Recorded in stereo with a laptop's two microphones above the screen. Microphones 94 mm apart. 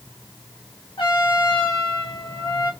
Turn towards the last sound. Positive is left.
turn(degrees=75)  # may be behind; listen again after turning